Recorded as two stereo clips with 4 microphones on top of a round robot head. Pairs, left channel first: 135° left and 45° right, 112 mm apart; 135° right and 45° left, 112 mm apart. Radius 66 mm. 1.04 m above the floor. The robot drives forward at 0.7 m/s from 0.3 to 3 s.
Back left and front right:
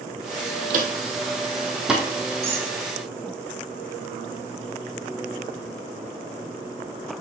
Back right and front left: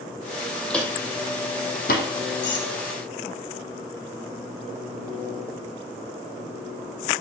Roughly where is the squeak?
Behind right.